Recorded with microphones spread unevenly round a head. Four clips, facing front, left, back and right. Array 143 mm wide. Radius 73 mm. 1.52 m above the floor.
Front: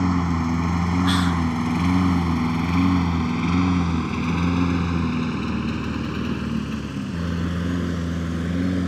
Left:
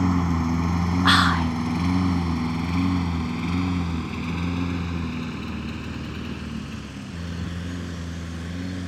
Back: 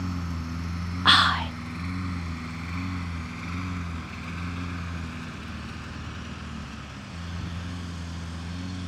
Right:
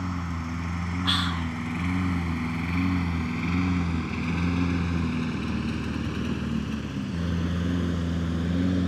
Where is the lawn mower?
40° left; by 8.9 s 25° right.